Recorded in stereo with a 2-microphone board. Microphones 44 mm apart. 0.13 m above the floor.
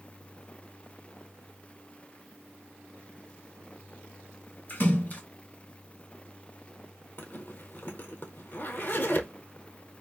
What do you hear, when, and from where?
4.7 s a splash: 40° left (ahead or behind), 2.5 m
7.2 s a zipper: 50° left (ahead or behind), 0.8 m